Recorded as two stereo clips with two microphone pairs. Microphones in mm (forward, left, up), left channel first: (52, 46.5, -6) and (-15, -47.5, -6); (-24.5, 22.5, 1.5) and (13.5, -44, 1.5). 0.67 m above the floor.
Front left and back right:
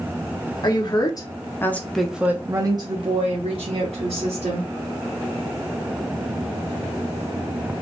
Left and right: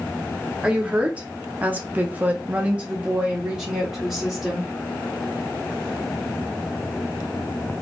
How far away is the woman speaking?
About 1.2 m.